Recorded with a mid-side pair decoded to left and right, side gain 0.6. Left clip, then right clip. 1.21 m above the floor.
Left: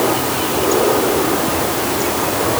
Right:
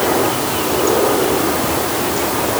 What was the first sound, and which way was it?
Only background noise.